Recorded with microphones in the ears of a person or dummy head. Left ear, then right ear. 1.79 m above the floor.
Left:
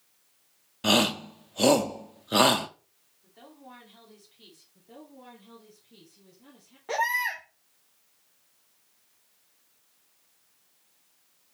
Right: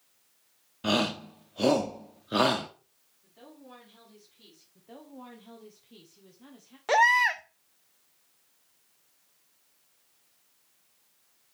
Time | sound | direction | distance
0.8 | a shout | 15° left (ahead or behind) | 0.9 m
3.2 | a woman speaking | 20° left (ahead or behind) | 3 m
4.8 | a woman speaking | 45° right (ahead or behind) | 1.4 m
6.9 | a baby crying | 25° right (ahead or behind) | 0.6 m